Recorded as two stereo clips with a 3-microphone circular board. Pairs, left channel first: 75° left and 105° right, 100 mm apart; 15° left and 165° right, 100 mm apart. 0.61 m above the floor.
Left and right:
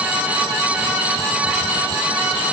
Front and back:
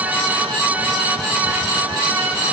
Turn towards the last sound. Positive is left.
No sound to turn to.